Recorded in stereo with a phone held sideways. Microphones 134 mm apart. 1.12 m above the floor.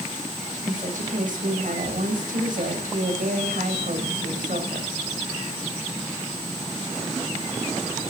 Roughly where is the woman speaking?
Right.